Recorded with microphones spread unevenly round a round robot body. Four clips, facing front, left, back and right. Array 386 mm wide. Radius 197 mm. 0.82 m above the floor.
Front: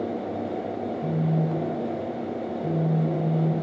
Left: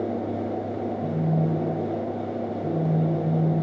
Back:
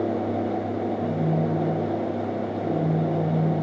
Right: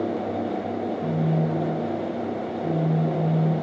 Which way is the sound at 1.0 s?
165° right.